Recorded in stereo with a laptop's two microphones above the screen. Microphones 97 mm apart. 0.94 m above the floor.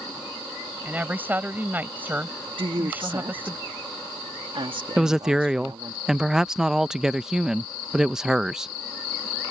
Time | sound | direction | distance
0.8 | a woman speaking | 20° right (ahead or behind) | ?
2.6 | a woman speaking | 60° right (ahead or behind) | ?
5.0 | a woman speaking | 5° right (ahead or behind) | ?